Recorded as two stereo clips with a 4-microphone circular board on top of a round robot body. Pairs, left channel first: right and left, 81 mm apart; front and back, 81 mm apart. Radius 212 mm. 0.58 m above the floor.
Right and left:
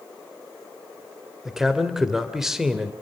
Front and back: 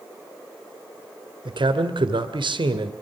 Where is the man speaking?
175° left, 2.5 m.